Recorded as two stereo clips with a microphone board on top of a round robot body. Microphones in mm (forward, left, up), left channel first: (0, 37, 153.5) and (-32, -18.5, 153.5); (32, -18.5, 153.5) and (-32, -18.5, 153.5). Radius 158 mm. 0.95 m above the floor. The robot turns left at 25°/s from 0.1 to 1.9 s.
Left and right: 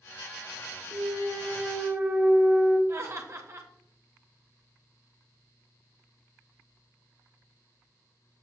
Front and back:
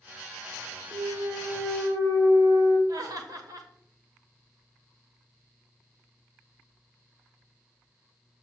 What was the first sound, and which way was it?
A clunk, 150° right.